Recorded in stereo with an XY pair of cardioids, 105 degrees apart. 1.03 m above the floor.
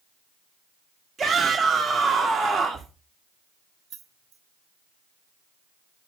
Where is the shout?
35° right, 1.5 m.